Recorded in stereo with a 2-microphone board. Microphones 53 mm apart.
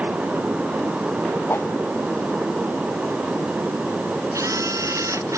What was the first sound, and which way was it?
A whoosh, 45° left (ahead or behind).